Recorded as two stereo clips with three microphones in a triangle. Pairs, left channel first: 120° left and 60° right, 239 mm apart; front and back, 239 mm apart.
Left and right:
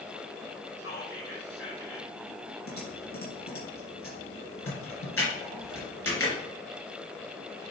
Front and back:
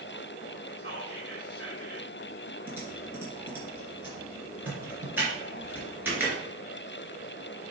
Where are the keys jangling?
No keys jangling in this recording.